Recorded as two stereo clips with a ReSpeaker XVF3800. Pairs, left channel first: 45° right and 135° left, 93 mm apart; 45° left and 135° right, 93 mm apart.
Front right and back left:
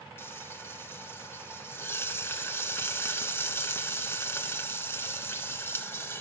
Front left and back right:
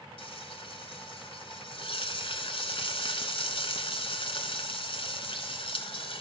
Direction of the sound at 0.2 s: 20° left.